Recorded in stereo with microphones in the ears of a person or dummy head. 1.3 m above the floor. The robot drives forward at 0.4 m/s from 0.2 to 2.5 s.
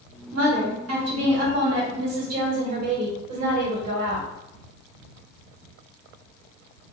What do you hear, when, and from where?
0.3 s a woman speaking: 75° right (ahead or behind), 1.6 m; by 4.3 s 55° right (ahead or behind), 2.0 m